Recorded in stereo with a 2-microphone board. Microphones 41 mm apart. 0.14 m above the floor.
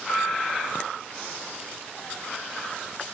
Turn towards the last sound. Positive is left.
turn(degrees=55)  # may be behind; listen again after turning